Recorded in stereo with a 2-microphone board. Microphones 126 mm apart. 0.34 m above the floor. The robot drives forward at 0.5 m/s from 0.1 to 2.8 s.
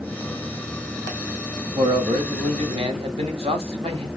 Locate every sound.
1.8 s a man speaking: 50° right (ahead or behind), 1.7 m